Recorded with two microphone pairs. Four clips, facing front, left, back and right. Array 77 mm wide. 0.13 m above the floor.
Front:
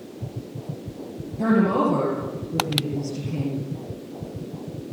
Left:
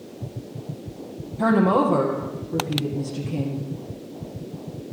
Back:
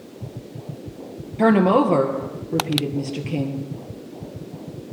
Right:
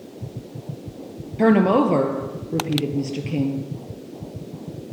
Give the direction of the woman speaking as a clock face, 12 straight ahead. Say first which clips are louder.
Right 2 dB, back 4 dB; 5 o'clock.